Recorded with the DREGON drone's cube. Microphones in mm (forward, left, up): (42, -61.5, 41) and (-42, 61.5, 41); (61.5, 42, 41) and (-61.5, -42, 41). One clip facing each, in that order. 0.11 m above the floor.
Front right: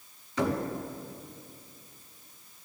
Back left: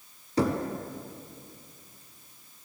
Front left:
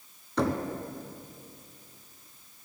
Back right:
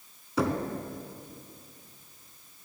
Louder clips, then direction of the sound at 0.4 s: Back left 3 dB, even; 135° left.